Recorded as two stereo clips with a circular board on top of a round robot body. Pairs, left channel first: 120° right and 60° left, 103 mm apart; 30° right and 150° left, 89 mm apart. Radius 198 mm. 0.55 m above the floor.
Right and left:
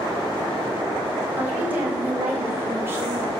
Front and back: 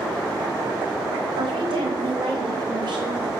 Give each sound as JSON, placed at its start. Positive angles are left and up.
{"t": 1.4, "sound": "a woman speaking", "azimuth_deg": 135, "distance_m": 5.0}